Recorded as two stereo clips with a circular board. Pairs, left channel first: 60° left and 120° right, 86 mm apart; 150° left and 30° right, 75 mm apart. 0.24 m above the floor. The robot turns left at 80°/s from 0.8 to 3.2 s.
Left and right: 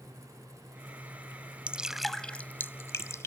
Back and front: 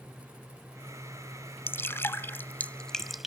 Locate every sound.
1.7 s dripping: straight behind; by 3.3 s 55° left